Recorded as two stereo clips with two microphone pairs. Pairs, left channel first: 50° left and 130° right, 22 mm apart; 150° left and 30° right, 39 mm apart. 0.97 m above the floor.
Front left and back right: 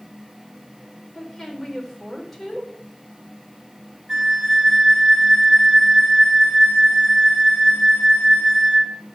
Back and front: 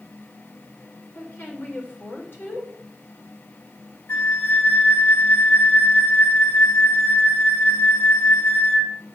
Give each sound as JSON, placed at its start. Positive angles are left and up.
{"t": 1.1, "sound": "a woman speaking", "azimuth_deg": 130, "distance_m": 3.5}
{"t": 4.1, "sound": "a flute", "azimuth_deg": 165, "distance_m": 2.5}